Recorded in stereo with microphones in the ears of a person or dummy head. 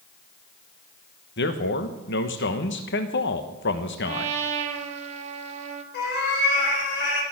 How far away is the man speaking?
About 1.2 m.